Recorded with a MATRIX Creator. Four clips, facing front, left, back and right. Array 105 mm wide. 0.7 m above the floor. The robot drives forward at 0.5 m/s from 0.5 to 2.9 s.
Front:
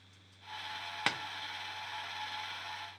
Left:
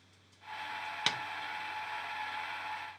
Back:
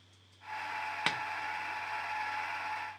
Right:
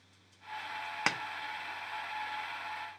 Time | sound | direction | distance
1.1 | tapping | 90° right | 0.5 m